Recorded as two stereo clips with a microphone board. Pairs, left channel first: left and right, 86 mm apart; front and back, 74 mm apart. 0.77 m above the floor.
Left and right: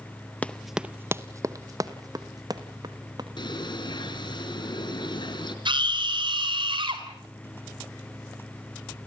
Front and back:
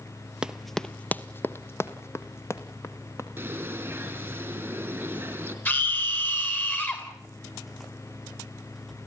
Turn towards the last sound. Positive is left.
turn(degrees=-65)